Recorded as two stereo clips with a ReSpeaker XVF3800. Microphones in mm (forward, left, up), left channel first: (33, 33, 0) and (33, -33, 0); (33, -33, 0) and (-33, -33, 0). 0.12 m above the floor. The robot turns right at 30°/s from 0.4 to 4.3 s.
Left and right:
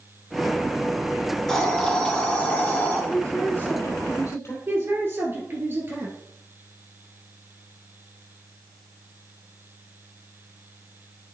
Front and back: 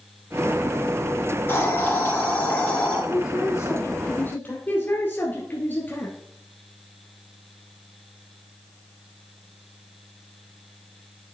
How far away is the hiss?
About 2 m.